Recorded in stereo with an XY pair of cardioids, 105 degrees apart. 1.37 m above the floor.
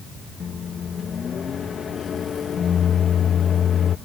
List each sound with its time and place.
0.4 s a microwave: 45° left